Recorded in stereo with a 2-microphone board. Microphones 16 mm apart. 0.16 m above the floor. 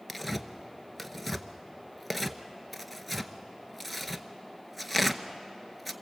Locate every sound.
0.1 s tearing paper: 5° right (ahead or behind), 0.9 m